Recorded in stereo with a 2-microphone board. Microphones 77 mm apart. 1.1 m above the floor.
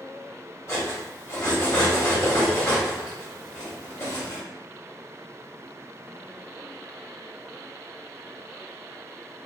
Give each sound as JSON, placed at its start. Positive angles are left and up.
{"t": 0.7, "sound": "cutlery clinking", "side_deg": 40, "distance_m": 1.1}